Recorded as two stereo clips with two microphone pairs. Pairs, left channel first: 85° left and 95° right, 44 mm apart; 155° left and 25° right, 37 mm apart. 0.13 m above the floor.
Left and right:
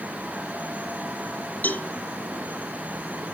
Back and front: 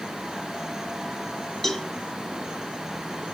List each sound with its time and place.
1.6 s a cowbell: 75° left, 1.8 m